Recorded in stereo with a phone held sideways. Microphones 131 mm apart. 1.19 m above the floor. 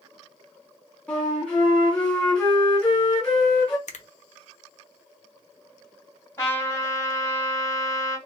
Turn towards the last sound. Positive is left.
turn(degrees=20)  # may be behind; listen again after turning